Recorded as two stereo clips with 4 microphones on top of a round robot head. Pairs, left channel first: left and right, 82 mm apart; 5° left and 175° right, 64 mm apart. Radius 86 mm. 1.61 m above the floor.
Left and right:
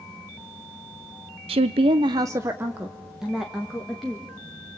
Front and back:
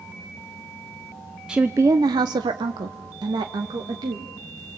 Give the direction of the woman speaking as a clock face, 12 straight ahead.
3 o'clock.